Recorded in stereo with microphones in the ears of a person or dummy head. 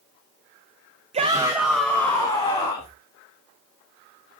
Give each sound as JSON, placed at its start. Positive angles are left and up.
{"t": 1.1, "sound": "a shout", "side_deg": -25, "distance_m": 1.0}